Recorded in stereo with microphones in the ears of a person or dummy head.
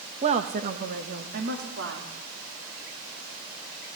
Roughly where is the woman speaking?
Right.